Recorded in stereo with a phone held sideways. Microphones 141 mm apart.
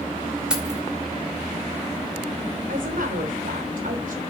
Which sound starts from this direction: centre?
Keys jangling, at 0.5 s.